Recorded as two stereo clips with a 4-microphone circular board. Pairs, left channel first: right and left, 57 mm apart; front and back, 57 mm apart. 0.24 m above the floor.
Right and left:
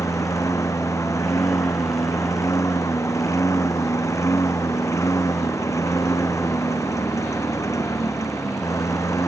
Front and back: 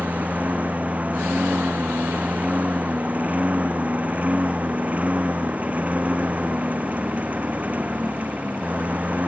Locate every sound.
0.0 s a lawn mower: 120° right